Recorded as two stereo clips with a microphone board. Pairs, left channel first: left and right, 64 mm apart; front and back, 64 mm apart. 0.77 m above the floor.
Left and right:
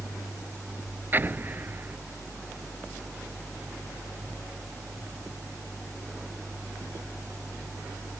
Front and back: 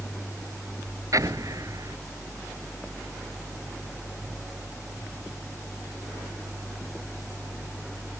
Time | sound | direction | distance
1.1 | an explosion | 150° right | ?